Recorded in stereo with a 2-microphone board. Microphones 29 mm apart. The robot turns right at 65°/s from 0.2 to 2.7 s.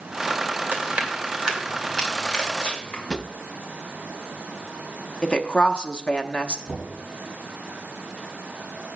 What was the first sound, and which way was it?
Chewing, 65° right (ahead or behind).